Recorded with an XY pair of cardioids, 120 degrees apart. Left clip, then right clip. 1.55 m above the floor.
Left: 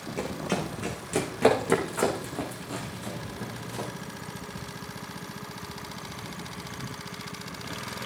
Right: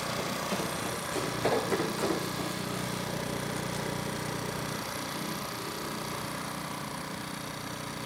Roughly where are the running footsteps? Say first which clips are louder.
Left 1 dB; ahead left.